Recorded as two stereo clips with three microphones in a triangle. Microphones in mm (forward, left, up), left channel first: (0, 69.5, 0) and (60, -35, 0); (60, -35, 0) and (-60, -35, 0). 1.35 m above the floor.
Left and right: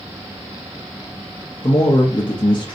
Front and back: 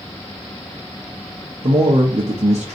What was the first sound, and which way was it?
A man speaking, 165° left.